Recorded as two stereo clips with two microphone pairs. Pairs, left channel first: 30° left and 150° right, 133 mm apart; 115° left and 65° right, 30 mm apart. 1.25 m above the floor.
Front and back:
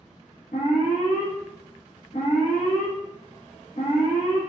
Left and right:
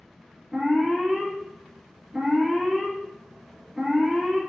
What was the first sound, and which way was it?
An alarm, 25° left.